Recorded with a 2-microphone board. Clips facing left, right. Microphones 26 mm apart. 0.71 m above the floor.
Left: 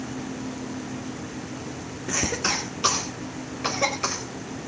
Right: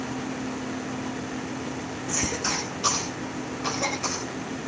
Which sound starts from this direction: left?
A cough, at 2.1 s.